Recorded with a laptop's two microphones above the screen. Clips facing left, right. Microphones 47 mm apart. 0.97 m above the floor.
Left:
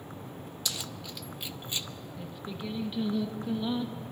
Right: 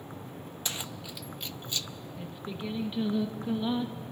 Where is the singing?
15° right (ahead or behind), 1.0 m.